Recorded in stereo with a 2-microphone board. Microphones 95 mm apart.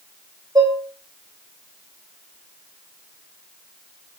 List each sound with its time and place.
0.6 s dishes clattering: 40° right (ahead or behind), 3 m